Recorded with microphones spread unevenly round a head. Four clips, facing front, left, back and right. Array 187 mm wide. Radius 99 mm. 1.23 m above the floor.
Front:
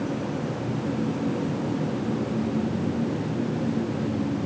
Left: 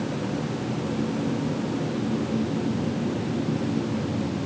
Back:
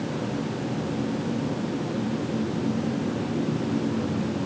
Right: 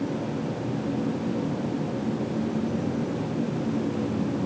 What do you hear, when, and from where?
Only background noise.